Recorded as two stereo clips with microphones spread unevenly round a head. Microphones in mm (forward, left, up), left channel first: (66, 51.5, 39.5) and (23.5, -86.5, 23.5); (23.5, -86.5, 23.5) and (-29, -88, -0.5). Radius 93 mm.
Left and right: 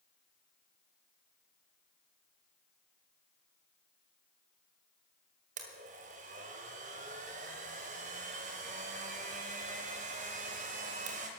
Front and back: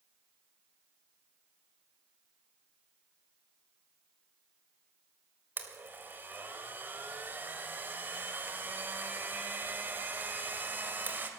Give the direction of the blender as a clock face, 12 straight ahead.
4 o'clock.